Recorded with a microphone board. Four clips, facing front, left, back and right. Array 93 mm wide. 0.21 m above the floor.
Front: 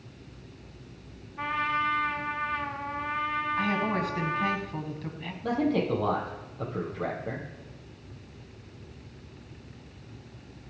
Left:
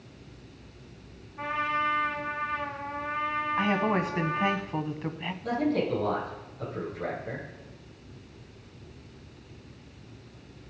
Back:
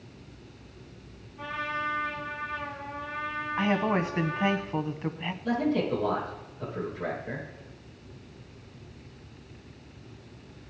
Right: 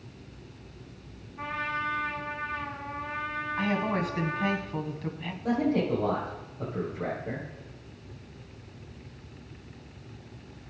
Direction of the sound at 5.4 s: 20° right.